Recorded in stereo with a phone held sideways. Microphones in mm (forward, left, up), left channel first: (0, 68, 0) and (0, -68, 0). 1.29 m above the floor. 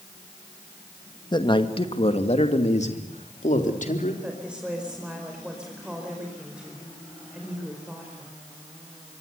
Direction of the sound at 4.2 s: 5° right (ahead or behind).